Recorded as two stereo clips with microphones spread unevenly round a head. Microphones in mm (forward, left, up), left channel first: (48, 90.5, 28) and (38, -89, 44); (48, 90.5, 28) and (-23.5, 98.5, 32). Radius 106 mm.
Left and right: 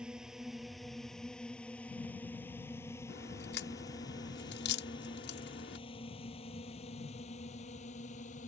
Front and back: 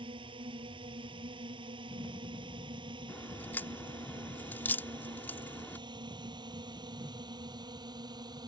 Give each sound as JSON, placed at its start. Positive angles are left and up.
{"t": 0.0, "sound": "a drone", "azimuth_deg": 180}
{"t": 3.1, "sound": "a crack", "azimuth_deg": 60}